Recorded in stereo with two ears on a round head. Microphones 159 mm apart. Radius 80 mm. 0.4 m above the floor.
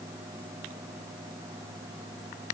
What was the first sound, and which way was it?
Only background noise.